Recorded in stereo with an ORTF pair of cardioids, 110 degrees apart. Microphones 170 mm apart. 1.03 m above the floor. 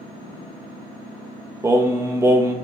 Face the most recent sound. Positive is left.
turn(degrees=-15)